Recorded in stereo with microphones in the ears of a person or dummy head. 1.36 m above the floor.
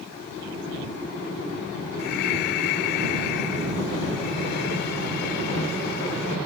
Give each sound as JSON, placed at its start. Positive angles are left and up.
{"t": 2.0, "sound": "breathing", "side_deg": 70}